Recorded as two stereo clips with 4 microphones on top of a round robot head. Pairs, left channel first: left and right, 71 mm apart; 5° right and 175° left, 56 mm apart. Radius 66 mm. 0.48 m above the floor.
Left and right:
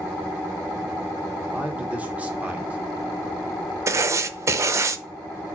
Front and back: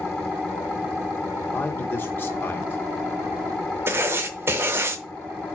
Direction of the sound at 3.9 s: 135° right.